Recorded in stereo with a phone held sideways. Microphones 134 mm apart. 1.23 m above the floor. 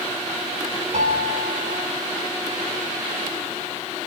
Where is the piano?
70° right (ahead or behind), 3.5 m.